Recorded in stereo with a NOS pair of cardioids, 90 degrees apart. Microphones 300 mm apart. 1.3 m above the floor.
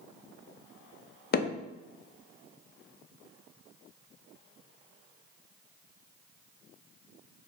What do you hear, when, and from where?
1.3 s hammering: 35° left, 0.6 m